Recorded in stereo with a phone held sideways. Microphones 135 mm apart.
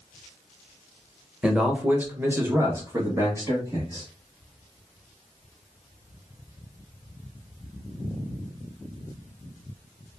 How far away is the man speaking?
About 0.9 m.